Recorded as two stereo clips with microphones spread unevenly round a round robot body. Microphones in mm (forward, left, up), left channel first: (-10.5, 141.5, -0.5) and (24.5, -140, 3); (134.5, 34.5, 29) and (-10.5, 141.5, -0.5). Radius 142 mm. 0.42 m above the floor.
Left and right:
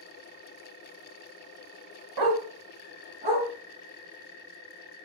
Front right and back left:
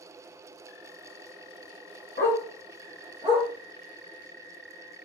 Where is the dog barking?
90° right, 0.6 m; by 3.5 s 145° right, 1.2 m.